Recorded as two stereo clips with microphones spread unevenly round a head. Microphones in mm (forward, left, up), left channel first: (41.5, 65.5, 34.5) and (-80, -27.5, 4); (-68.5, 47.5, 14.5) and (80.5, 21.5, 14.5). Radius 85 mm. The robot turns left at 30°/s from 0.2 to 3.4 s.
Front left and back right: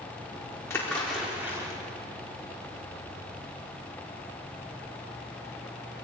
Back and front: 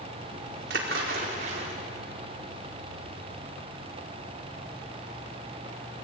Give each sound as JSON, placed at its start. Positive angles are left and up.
{"t": 0.7, "sound": "a splash", "azimuth_deg": -40, "distance_m": 4.0}